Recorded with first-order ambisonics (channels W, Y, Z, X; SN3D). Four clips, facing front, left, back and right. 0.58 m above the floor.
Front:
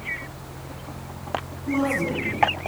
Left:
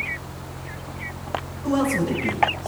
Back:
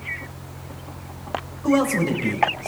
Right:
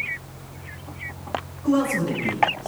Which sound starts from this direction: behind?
A man speaking, at 1.6 s.